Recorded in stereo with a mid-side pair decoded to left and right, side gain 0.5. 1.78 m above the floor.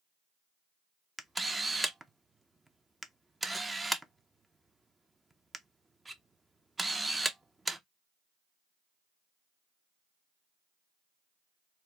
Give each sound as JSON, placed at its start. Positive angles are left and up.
{"t": 1.2, "sound": "a camera shutter", "azimuth_deg": -15, "distance_m": 0.5}